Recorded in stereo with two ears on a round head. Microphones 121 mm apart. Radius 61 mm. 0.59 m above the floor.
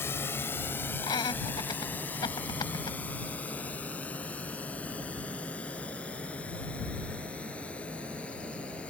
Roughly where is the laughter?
Left.